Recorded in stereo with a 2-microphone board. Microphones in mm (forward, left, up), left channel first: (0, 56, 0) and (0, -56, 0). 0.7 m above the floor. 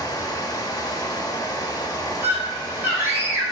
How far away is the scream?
About 3 m.